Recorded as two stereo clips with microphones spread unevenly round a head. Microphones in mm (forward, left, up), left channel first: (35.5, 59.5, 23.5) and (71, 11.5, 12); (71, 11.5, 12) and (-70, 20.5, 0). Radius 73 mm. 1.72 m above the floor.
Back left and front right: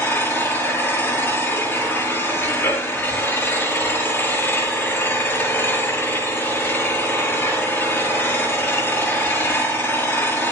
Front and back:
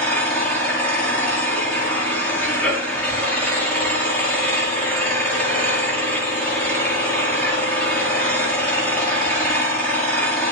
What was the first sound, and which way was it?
An engine running, 75° left.